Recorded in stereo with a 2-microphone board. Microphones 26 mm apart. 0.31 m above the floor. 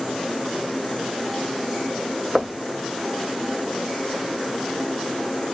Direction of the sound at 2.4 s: 25° right (ahead or behind).